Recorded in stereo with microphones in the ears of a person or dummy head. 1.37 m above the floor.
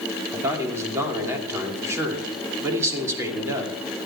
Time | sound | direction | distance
0.3 | a man speaking | 15° right (ahead or behind) | 2.5 m